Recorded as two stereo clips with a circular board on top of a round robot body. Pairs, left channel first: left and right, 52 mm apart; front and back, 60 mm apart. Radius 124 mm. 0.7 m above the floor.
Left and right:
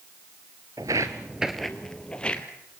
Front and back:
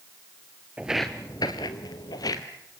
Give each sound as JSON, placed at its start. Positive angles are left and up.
{"t": 0.8, "sound": "footsteps", "azimuth_deg": -115, "distance_m": 0.7}